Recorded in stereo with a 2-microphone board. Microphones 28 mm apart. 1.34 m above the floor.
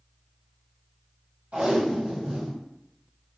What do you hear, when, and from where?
1.5 s tape being pulled: 60° right (ahead or behind), 1.7 m